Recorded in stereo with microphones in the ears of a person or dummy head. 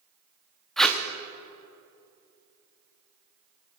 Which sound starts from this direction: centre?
Tape being pulled, at 0.8 s.